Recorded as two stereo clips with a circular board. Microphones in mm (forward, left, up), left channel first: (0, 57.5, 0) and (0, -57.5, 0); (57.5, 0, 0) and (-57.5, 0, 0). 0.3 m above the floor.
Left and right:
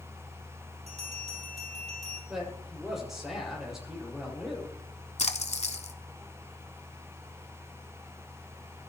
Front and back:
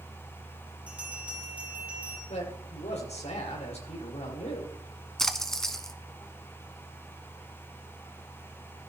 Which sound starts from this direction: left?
A splash, at 5.2 s.